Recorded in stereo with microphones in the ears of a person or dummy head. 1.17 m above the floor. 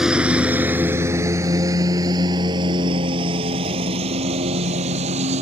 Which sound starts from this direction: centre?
A lawn mower, at 0.0 s.